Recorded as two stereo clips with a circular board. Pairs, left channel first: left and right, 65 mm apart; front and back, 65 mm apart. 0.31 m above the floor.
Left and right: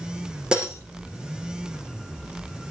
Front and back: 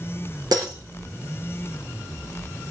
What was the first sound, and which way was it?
Breaking glass, 165° right.